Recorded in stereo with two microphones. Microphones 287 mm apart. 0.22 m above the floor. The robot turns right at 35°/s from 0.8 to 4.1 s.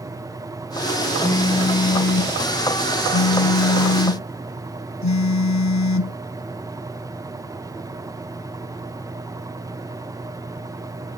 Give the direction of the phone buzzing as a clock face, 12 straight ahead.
12 o'clock.